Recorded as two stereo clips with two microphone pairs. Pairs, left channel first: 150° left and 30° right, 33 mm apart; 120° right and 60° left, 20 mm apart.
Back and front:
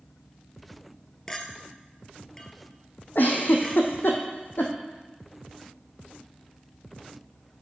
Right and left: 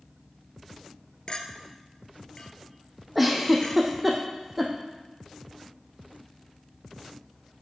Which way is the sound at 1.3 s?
140° right.